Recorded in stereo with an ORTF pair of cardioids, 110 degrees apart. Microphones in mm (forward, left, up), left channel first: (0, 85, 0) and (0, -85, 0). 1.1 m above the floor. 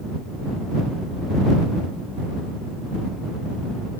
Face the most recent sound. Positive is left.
No sound to turn to.